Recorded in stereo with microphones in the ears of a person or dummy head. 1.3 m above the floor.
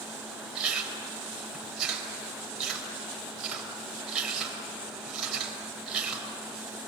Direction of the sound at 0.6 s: 5° right (ahead or behind).